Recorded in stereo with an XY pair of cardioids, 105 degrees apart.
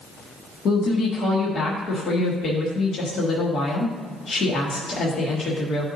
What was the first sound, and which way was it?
A woman speaking, 55° left.